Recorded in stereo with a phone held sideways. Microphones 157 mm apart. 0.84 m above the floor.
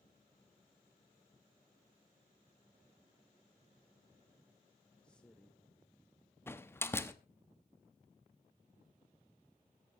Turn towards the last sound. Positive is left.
turn(degrees=15)  # may be behind; listen again after turning